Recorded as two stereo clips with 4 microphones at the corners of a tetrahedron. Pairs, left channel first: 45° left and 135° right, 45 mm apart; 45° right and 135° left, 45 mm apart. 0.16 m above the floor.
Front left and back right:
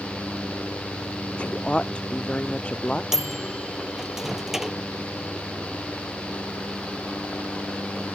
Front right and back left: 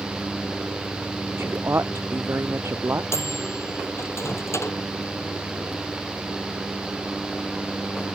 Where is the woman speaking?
110° left; by 3.0 s 115° left.